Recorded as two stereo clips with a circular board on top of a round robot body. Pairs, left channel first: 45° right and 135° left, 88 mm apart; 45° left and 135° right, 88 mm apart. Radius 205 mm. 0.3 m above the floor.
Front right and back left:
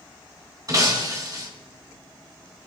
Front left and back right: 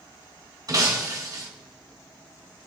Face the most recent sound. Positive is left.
turn(degrees=180)